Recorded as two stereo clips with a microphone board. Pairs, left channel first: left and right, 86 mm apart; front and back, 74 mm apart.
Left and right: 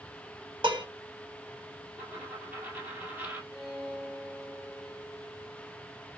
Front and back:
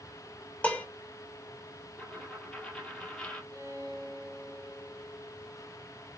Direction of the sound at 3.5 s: 175° right.